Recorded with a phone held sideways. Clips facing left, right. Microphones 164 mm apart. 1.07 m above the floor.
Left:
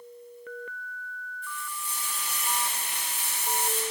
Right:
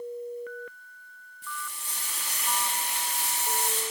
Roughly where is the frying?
Right.